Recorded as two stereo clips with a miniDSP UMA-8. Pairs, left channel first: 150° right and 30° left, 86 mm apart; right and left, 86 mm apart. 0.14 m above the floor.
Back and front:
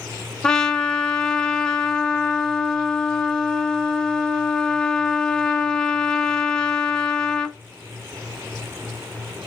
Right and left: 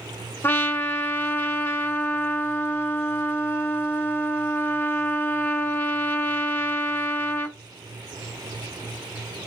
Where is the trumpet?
75° right, 0.5 m.